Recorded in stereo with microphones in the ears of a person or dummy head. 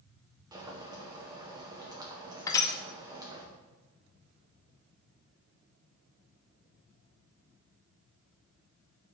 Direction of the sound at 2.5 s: 25° left (ahead or behind).